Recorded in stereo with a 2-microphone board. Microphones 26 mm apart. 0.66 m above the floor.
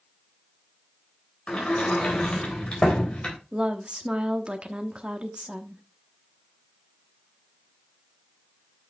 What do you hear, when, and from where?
1.5 s a sliding door: 45° left (ahead or behind), 3.5 m
3.5 s a woman speaking: 40° right (ahead or behind), 1.0 m